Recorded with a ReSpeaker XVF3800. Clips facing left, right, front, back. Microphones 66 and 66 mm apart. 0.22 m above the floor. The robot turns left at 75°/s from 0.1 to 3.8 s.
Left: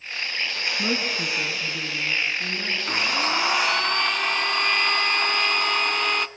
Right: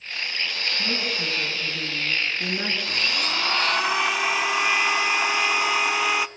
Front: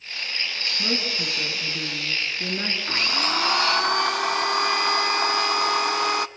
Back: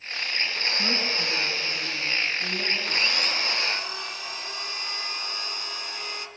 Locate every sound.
0.8 s a woman speaking: 100° left, 4 m; by 2.8 s 50° right, 4 m
2.9 s a blender: 65° left, 0.7 m; by 6.3 s 5° right, 0.7 m